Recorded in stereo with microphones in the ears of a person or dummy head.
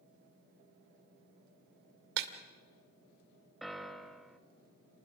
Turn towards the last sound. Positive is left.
turn(degrees=0)  # may be behind; listen again after turning